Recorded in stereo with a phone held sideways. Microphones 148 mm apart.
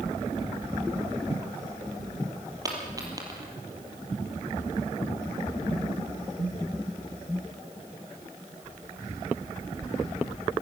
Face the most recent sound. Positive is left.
turn(degrees=-25)  # may be behind; listen again after turning